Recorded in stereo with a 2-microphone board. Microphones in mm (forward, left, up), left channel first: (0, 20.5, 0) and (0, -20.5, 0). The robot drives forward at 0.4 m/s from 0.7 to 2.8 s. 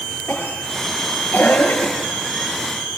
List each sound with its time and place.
0.3 s a cough: 50° left (ahead or behind), 5 m; by 1.9 s 45° left (ahead or behind), 5 m